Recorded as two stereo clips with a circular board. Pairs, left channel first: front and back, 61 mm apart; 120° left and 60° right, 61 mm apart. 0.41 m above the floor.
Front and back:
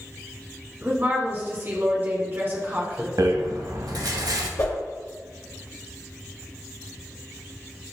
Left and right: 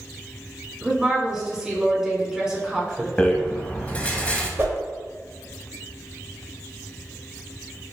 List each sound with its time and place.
0.8 s a woman speaking: 140° right, 1.3 m
3.2 s a rattle: 170° right, 0.5 m
4.6 s a whoosh: 10° right, 0.9 m